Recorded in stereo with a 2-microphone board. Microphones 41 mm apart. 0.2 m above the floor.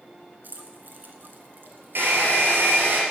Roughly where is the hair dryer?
Right.